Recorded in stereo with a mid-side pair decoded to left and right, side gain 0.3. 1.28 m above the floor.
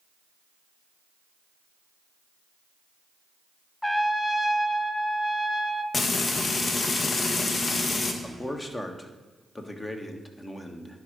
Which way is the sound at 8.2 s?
30° left.